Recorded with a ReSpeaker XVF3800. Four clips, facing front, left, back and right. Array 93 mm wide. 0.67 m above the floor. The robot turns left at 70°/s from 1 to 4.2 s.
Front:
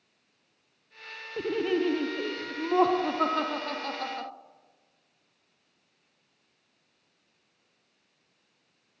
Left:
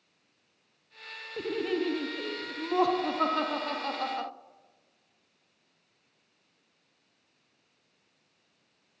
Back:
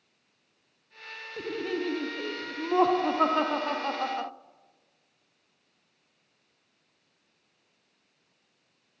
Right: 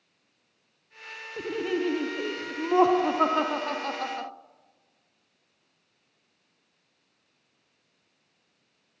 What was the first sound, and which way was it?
Laughter, 5° left.